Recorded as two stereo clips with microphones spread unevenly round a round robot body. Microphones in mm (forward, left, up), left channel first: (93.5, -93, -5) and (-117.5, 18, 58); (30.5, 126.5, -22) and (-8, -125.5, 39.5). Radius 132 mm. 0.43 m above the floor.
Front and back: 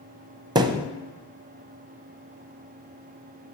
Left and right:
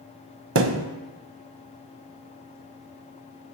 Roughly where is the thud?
Behind right.